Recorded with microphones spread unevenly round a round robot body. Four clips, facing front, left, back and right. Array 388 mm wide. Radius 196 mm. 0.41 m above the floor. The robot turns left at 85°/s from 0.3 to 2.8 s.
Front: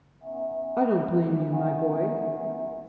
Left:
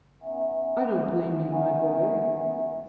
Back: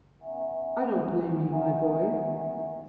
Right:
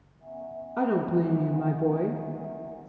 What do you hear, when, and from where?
0.8 s a woman speaking: straight ahead, 0.8 m; by 2.9 s 175° right, 0.8 m